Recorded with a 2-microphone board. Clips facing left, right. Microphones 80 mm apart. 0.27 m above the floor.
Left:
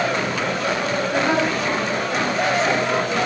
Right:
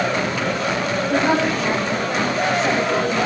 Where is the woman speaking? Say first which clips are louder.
Right 3 dB; 55° right (ahead or behind), 7 m.